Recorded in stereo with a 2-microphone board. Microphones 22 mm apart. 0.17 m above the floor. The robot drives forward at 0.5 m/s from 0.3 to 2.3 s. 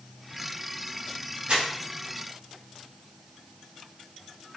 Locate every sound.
1.5 s crumpling: 60° right (ahead or behind), 2.0 m